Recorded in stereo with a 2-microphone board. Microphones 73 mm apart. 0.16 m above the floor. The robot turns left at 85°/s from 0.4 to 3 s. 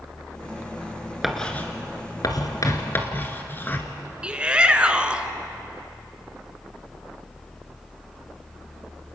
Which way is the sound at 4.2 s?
15° right (ahead or behind).